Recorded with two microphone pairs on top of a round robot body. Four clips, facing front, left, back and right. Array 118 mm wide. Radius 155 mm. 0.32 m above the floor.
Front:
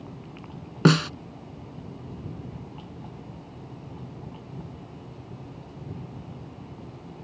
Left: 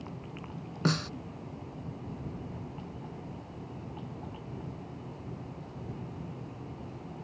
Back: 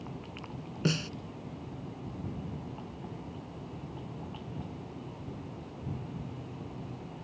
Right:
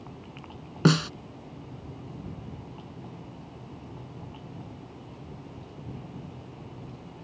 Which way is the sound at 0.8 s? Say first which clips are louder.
Right 8 dB, front 12 dB; 35° right.